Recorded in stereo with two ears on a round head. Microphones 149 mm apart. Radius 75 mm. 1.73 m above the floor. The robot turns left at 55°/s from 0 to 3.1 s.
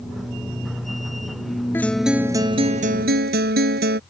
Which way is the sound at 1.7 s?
15° left.